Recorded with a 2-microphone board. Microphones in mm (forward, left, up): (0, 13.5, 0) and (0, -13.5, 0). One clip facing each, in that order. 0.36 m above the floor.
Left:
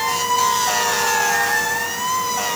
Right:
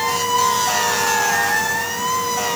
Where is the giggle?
No giggle in this recording.